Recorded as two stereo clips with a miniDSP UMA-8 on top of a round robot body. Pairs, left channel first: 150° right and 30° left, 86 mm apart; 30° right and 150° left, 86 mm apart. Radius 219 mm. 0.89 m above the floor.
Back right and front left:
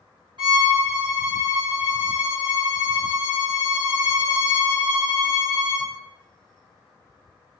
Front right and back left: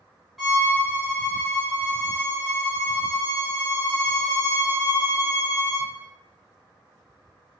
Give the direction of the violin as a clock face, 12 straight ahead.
10 o'clock.